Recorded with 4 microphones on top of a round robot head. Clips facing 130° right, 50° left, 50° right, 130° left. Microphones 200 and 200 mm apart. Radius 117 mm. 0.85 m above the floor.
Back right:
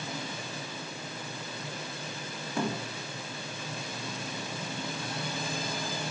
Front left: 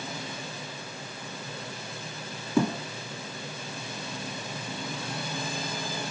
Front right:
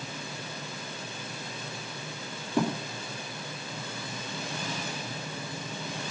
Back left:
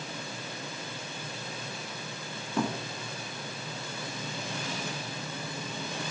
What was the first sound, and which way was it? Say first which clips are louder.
A thud: front left 7 dB, front right 3 dB; 35° left.